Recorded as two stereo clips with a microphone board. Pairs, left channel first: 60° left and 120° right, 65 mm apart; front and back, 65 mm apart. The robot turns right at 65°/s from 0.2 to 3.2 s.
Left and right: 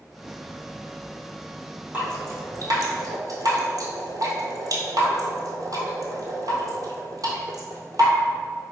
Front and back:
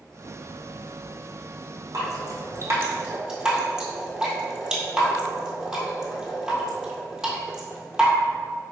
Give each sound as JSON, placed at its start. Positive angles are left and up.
{"t": 1.9, "sound": "dripping", "azimuth_deg": 175, "distance_m": 1.1}